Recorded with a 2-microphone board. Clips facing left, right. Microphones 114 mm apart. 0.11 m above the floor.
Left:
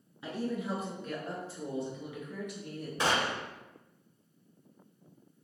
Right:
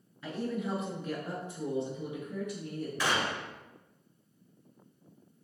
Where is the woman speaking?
15° left (ahead or behind), 1.1 m; by 2.9 s 45° right (ahead or behind), 1.5 m.